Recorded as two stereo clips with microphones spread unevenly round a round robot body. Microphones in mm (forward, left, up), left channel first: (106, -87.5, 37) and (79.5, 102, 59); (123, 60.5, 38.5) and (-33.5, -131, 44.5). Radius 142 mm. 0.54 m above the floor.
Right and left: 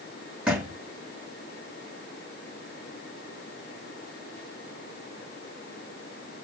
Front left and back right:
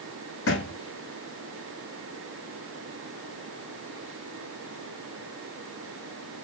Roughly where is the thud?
Ahead.